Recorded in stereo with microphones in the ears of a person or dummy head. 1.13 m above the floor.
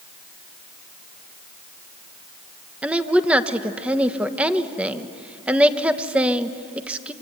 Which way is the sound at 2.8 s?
5° right (ahead or behind).